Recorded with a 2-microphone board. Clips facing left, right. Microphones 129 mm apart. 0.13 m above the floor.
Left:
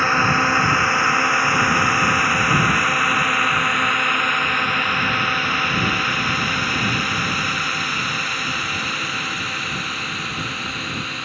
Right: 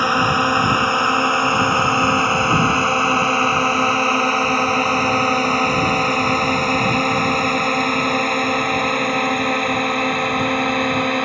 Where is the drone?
15° right (ahead or behind); by 11.2 s 60° right (ahead or behind).